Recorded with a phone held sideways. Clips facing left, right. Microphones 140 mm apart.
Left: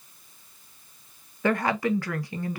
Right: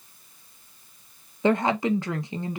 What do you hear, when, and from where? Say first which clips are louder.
1.4 s a woman speaking: right 2 dB; 20° right (ahead or behind), 0.7 m